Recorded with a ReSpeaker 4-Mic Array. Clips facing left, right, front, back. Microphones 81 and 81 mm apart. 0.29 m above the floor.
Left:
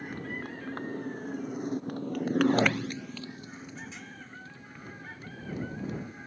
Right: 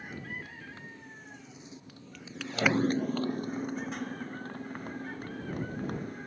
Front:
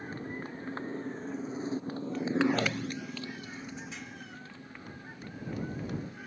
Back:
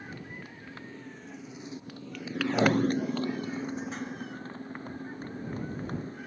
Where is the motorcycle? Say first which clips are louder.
Left 4 dB, front 4 dB; 55° left; by 6.3 s 130° right.